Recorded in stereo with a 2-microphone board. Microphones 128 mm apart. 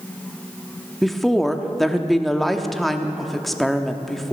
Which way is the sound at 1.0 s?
Centre (ahead or behind).